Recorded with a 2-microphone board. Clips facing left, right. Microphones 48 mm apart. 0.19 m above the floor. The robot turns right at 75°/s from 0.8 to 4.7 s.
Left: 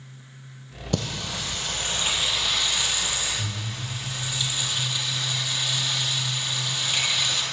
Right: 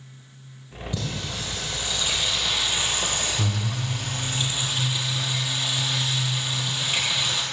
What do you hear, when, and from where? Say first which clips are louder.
0.9 s singing: left 3 dB; 65° left, 2.5 m; by 7.4 s 15° right, 2.5 m